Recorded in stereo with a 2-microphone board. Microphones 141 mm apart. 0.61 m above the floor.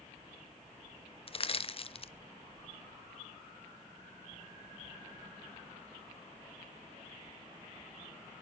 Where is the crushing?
40° left (ahead or behind), 0.6 m.